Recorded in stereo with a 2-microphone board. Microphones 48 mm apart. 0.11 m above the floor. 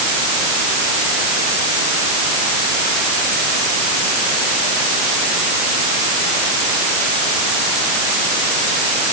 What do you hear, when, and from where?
Only background noise.